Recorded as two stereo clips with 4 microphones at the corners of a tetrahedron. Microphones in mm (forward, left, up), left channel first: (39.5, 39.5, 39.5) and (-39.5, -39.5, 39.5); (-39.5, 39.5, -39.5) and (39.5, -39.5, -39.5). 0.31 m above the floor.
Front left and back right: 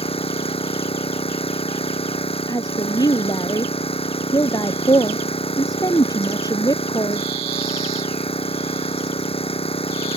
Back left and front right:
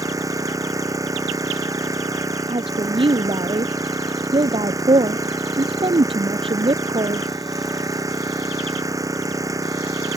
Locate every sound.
0.0 s an engine running: 15° left
2.5 s a woman speaking: 10° right